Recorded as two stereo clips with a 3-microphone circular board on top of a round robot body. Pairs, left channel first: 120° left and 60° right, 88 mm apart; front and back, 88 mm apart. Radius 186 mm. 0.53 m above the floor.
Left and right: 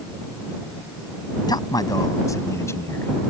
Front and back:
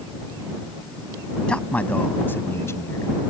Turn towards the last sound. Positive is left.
turn(degrees=55)